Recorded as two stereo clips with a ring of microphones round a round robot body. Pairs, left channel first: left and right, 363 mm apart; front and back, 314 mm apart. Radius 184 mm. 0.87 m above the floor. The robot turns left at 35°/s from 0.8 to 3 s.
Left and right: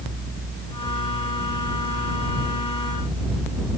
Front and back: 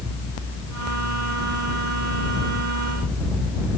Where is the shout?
I don't hear a shout.